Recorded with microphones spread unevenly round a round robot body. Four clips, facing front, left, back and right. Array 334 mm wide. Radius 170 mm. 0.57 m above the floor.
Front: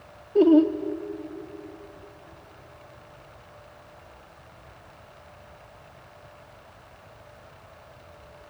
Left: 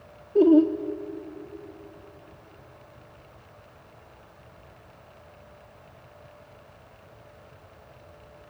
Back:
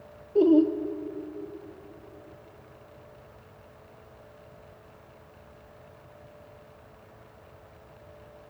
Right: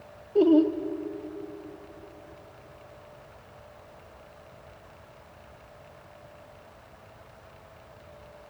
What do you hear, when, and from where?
0.3 s laughter: 45° left, 1.2 m